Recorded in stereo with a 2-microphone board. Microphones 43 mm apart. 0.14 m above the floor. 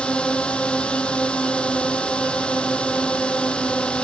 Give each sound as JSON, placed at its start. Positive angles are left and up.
{"t": 0.0, "sound": "a drone", "side_deg": 25}